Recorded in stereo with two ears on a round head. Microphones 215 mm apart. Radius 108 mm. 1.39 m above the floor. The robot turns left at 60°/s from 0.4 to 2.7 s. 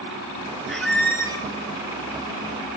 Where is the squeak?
Centre (ahead or behind), 0.6 m; by 1.5 s 15° left (ahead or behind), 0.6 m.